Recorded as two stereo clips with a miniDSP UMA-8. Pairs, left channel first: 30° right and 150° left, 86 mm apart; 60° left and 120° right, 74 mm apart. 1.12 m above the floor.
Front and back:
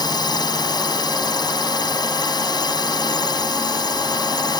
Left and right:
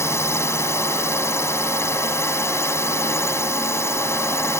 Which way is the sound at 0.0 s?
5° left.